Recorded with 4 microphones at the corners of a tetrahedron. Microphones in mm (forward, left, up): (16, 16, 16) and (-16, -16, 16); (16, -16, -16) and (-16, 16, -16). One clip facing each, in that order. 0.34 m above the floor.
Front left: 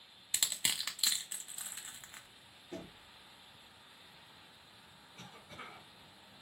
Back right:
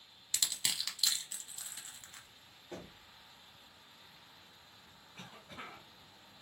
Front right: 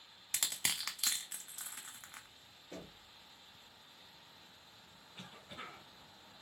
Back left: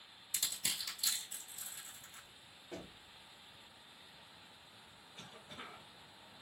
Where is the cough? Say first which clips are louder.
Back right 2 dB, front right 2 dB; 120° right, 3 m.